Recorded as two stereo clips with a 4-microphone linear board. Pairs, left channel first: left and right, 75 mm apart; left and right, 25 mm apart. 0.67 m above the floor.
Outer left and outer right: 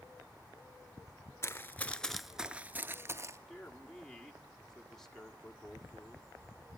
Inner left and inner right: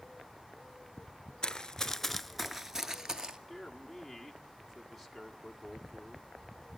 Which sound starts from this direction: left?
Running footsteps, at 1.4 s.